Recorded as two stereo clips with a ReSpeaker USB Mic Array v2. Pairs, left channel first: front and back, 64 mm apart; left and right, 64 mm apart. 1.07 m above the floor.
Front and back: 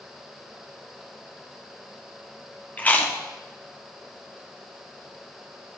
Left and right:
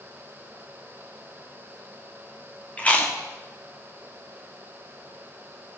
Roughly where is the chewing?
Ahead left.